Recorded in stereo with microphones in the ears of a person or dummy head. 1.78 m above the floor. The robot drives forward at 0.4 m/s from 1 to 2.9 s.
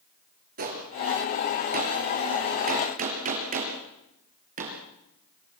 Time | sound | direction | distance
0.6 | a gunshot | 50° right (ahead or behind) | 6 m